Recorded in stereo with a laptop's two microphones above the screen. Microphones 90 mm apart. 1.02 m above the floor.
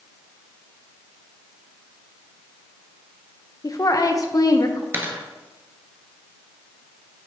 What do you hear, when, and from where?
3.6 s a woman speaking: 40° left (ahead or behind), 0.6 m
4.9 s a dropped coin: 25° right (ahead or behind), 1.1 m